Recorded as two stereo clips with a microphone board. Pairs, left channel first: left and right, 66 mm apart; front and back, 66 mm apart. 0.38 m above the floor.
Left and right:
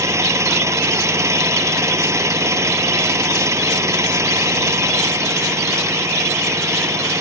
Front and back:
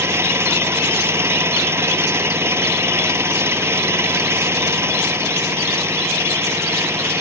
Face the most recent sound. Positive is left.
turn(degrees=-130)